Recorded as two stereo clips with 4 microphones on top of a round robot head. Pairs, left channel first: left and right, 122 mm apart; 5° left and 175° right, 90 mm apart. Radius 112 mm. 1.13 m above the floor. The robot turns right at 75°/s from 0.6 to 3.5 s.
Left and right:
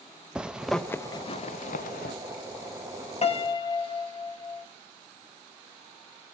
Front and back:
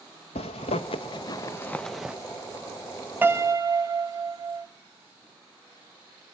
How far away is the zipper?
About 0.6 m.